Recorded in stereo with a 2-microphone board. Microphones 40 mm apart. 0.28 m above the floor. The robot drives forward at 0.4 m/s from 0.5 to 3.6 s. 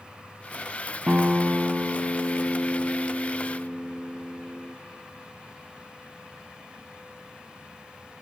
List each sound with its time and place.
1.1 s a guitar: 35° right (ahead or behind), 0.6 m; by 4.8 s 15° right (ahead or behind), 1.5 m